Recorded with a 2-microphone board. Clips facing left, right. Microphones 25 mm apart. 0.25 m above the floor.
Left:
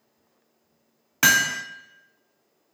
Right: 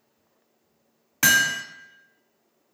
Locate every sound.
1.2 s hammering: 20° left (ahead or behind), 0.6 m